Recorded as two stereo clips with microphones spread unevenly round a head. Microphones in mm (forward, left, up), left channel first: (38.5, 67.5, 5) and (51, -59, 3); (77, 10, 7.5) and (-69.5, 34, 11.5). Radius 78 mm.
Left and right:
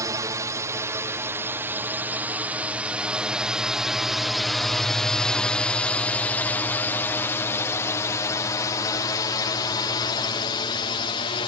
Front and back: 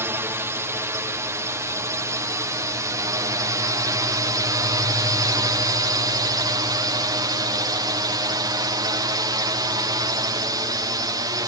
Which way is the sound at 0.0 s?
125° right.